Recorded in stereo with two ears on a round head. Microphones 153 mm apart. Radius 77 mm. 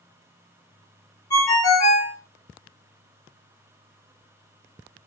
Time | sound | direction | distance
1.3 | a ringtone | 25° left (ahead or behind) | 0.7 m